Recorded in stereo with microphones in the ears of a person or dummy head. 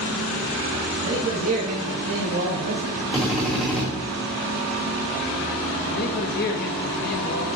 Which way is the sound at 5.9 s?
45° left (ahead or behind).